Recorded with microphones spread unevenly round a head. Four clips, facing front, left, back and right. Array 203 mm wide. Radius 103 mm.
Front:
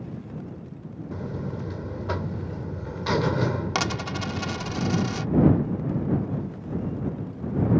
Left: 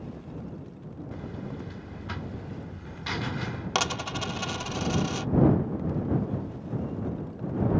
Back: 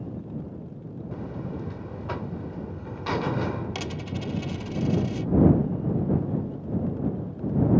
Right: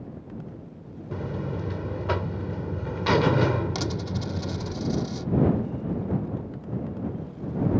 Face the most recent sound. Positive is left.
turn(degrees=40)